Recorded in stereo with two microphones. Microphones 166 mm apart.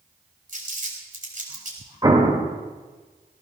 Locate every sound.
0.5 s crumpling: 50° right (ahead or behind), 4 m
2.0 s an explosion: 25° right (ahead or behind), 2.5 m